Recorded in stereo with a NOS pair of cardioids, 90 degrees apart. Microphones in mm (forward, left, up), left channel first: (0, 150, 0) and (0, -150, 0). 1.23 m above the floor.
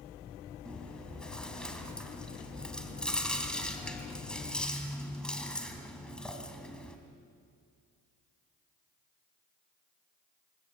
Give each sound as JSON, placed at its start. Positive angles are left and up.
{"t": 0.7, "sound": "chewing", "azimuth_deg": 5, "distance_m": 3.5}